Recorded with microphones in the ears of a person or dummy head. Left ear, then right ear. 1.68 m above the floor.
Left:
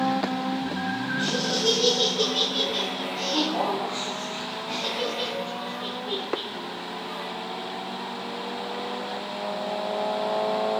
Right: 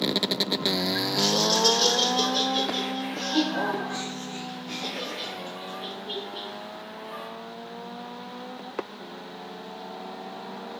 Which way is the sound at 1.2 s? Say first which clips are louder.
Right 4 dB; 85° right.